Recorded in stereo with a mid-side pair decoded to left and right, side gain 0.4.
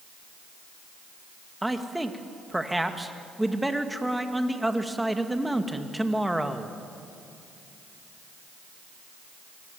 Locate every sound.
1.6 s a man speaking: 10° right, 2 m